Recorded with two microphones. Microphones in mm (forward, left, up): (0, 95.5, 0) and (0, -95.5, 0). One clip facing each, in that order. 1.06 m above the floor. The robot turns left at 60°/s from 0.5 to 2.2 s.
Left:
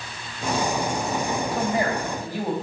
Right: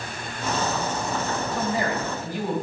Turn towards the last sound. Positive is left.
turn(degrees=130)